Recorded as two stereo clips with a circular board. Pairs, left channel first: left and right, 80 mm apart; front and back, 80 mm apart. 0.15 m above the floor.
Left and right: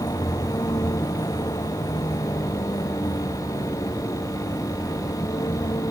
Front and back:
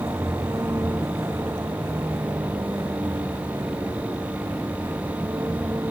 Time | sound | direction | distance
0.0 | a vehicle | 125° left | ?